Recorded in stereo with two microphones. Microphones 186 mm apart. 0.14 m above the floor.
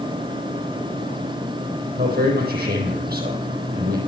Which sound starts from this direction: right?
A man speaking, at 2.0 s.